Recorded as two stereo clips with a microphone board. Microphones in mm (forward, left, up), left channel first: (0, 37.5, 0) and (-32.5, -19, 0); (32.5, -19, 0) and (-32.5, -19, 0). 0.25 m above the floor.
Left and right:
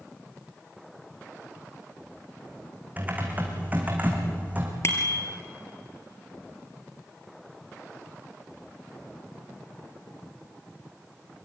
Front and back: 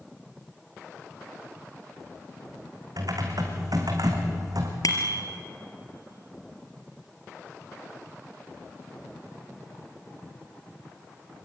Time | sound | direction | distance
3.0 | typing on a keyboard | 175° left | 4 m
4.8 | a bicycle bell | 15° left | 3.5 m